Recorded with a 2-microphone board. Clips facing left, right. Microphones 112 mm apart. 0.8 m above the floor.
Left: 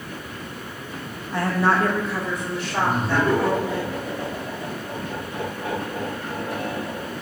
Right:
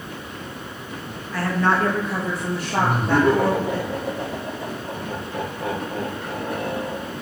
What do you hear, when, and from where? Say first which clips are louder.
1.3 s a woman speaking: even; 25° left (ahead or behind), 0.7 m; by 3.8 s 65° right (ahead or behind), 1.4 m
2.8 s laughter: right 3 dB; 65° right (ahead or behind), 1.5 m